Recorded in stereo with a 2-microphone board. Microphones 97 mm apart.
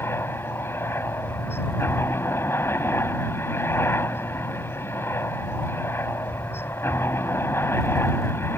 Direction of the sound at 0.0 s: 25° left (ahead or behind).